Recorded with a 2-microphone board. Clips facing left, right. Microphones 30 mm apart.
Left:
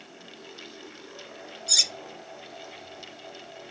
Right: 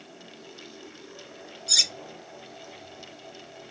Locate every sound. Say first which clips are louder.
1.7 s cutlery clinking: right 1 dB; 5° right (ahead or behind), 0.5 m